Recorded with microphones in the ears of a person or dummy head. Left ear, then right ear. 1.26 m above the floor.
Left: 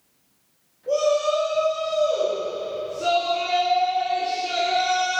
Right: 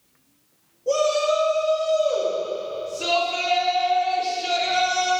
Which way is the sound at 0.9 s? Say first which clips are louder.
Even; 80° right.